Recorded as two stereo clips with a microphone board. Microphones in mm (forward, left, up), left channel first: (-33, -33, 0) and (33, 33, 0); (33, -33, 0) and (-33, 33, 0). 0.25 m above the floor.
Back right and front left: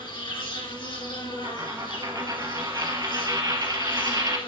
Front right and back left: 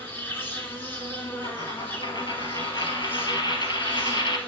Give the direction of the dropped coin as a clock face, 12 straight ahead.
12 o'clock.